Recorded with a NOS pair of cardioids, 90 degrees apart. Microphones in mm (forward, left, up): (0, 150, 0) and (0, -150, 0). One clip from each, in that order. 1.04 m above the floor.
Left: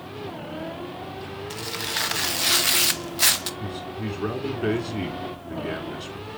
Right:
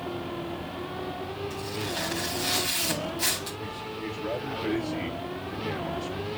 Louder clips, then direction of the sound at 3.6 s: Left 2 dB; 70° left.